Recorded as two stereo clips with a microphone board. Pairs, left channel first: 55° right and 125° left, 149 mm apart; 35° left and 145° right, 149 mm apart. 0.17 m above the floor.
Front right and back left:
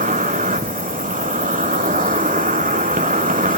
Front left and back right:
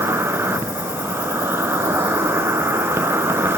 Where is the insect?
140° left, 0.8 m.